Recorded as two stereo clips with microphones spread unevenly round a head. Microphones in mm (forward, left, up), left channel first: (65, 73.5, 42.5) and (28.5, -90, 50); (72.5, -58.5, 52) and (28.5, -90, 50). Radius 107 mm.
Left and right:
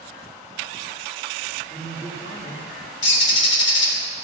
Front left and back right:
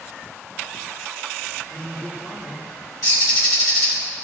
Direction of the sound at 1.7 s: 135° left.